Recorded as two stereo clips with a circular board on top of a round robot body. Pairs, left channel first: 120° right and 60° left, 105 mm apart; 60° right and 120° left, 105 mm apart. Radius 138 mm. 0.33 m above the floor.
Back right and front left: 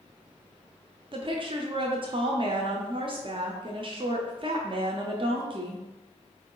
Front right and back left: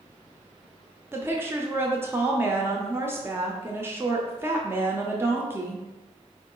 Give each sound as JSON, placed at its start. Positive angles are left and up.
{"t": 1.1, "sound": "a woman speaking", "azimuth_deg": 60, "distance_m": 1.2}